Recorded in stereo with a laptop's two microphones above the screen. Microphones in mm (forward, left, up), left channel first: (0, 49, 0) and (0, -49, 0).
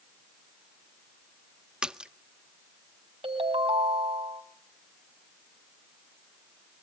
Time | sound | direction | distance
1.8 | a splash | 10° right (ahead or behind) | 0.6 m
3.2 | a ringtone | 85° right | 3.5 m